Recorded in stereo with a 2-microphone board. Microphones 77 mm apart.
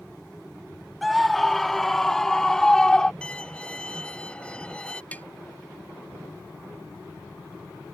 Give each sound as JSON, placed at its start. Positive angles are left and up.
{"t": 1.0, "sound": "a scream", "side_deg": 0}
{"t": 3.2, "sound": "a violin", "side_deg": 15}
{"t": 5.1, "sound": "tapping", "side_deg": 20}